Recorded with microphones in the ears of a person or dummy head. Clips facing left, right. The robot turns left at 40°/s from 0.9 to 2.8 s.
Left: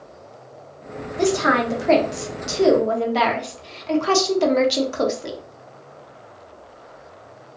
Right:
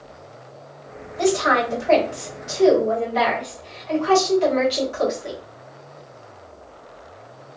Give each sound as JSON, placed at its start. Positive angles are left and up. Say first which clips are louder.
{"t": 1.2, "sound": "a woman speaking", "louder": "even", "azimuth_deg": 130, "distance_m": 1.1}